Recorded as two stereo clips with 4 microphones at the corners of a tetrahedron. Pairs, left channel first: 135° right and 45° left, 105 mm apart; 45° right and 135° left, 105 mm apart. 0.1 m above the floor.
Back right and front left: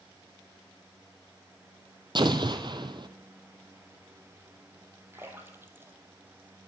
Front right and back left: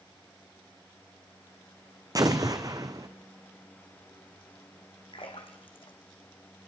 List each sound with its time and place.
2.1 s an explosion: 85° left, 1.0 m
5.1 s a splash: 20° right, 1.8 m